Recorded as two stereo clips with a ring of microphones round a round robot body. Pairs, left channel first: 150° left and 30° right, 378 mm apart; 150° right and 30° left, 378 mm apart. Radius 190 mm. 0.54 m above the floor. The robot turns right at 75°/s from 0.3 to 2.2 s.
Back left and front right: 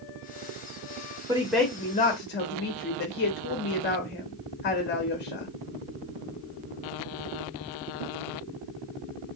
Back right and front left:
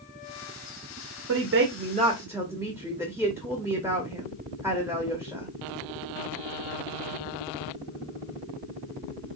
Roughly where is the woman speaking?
Ahead left.